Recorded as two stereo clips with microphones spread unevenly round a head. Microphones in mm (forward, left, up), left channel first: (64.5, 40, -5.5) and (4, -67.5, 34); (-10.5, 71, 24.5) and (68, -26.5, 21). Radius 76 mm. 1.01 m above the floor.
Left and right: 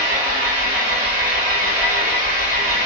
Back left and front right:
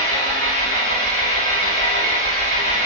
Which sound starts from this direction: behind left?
An engine running, at 0.0 s.